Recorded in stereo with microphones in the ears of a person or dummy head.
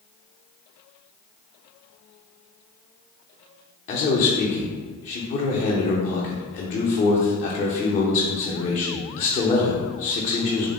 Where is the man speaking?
40° left (ahead or behind), 0.5 m.